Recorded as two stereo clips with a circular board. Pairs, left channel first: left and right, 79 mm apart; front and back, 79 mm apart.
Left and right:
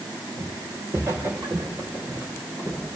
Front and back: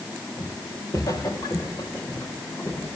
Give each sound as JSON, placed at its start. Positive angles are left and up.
{"t": 0.4, "sound": "footsteps", "azimuth_deg": -40, "distance_m": 7.5}